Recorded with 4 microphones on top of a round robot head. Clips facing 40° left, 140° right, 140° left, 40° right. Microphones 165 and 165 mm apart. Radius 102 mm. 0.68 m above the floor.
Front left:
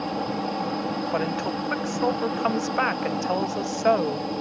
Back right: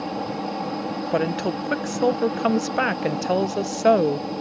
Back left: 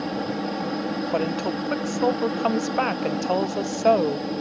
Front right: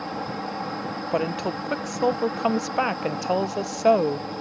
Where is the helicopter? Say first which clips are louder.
Even, back left 4 dB; 135° left.